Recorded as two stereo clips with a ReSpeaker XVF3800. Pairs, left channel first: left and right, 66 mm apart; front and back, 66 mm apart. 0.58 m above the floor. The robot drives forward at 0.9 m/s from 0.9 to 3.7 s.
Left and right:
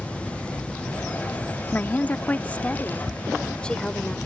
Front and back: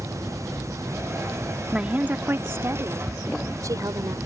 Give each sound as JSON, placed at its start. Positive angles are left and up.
{"t": 1.7, "sound": "a woman speaking", "azimuth_deg": 120}